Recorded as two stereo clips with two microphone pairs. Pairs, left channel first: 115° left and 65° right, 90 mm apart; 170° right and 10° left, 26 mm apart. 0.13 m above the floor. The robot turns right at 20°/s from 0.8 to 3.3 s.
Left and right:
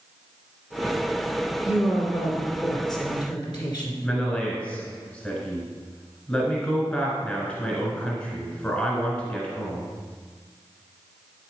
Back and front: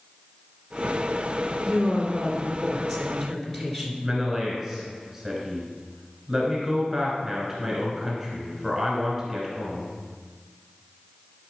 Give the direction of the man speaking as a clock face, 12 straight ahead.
9 o'clock.